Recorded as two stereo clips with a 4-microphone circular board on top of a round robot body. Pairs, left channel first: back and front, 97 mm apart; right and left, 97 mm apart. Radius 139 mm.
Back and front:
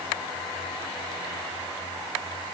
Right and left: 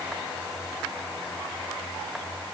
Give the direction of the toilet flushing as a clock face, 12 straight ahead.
No toilet flushing in this recording.